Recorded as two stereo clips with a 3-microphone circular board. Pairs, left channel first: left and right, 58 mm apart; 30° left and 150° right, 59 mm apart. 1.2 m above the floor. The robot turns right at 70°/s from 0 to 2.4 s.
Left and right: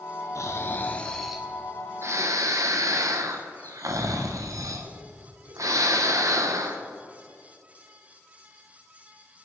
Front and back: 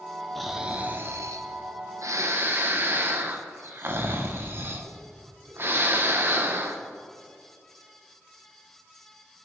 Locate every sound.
0.3 s snoring: 115° left, 0.6 m; by 6.8 s 100° right, 0.6 m